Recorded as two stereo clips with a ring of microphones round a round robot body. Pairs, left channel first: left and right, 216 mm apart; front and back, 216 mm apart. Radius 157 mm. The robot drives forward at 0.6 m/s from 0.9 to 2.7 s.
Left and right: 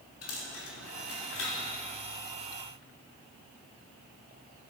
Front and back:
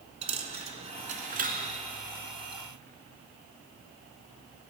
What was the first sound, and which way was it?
A dropped coin, 120° left.